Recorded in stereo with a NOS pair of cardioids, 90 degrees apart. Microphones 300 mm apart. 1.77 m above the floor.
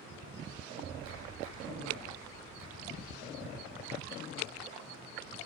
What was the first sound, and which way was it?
A clap, 65° right.